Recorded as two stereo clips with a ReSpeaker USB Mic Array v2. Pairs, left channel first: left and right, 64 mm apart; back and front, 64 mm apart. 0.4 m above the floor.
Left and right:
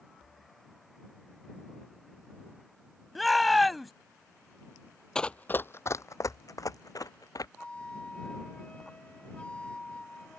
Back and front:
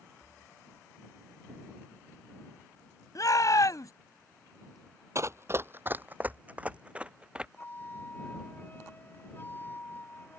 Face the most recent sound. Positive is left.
turn(degrees=150)